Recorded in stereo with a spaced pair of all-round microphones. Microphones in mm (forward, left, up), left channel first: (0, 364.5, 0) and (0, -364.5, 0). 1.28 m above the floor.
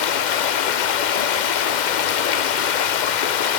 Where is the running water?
85° left, 0.7 m.